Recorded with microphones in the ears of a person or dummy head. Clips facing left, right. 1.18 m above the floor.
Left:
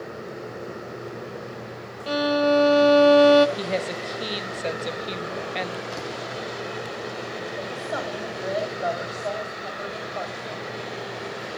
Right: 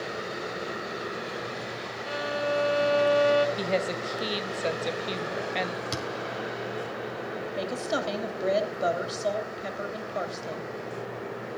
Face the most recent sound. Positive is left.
turn(degrees=-35)  # may be behind; listen again after turning